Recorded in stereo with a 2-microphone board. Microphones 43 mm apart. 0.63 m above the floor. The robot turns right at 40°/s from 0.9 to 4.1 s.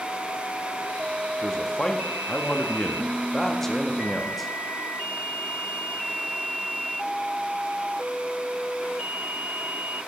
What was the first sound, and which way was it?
A man speaking, 15° left (ahead or behind).